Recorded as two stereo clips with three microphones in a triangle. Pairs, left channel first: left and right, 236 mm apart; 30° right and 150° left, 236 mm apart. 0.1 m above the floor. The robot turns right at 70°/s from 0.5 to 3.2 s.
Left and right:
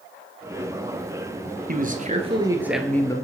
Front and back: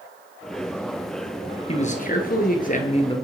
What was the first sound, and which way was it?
A man speaking, 80° right.